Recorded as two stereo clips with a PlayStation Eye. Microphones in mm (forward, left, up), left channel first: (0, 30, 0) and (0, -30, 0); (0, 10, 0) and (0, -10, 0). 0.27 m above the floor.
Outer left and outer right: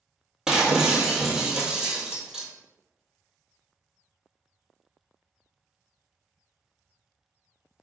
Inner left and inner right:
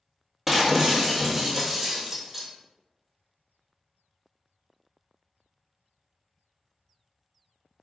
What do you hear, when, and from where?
0.5 s breaking glass: 5° right (ahead or behind), 1.1 m